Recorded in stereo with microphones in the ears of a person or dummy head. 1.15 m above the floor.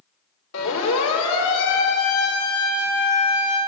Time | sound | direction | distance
0.5 | a siren | 70° left (ahead or behind) | 4.5 m